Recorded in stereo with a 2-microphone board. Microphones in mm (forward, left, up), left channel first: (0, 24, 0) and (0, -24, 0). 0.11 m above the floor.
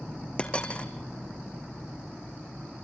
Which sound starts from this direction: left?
A dropped coin, at 0.4 s.